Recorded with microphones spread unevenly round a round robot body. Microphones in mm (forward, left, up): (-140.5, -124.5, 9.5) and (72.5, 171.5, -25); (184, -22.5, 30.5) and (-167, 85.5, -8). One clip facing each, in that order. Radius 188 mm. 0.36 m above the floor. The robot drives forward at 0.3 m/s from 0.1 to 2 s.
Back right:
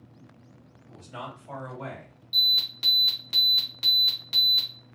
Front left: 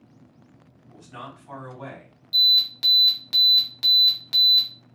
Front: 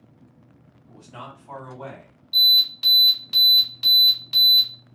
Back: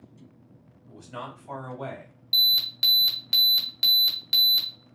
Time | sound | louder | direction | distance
0.9 | a man speaking | back right 1 dB, back 2 dB | 130° left | 2 m
2.3 | an alarm | front left 3 dB, front 5 dB | 130° left | 1.3 m